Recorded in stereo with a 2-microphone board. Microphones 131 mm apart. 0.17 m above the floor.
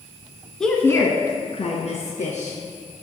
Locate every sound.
0.6 s a woman speaking: 5° left (ahead or behind), 1.4 m; by 2.6 s 65° left (ahead or behind), 3 m